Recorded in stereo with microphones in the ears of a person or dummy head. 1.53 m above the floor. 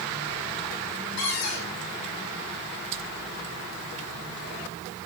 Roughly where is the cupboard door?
Left.